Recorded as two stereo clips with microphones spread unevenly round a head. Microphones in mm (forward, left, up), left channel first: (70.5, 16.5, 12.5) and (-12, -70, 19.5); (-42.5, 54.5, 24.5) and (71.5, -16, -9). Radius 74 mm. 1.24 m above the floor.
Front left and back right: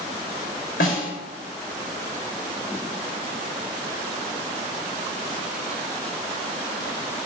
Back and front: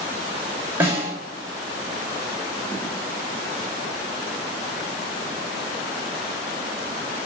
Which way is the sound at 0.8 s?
50° left.